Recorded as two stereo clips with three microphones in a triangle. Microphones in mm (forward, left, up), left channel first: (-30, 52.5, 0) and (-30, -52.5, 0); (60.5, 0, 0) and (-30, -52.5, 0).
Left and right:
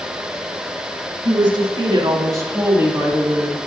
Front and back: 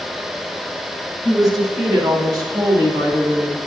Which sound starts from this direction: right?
A woman speaking, at 1.2 s.